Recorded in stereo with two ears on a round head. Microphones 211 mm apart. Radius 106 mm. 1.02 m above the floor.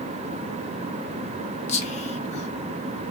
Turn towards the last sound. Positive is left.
turn(degrees=25)  # may be behind; listen again after turning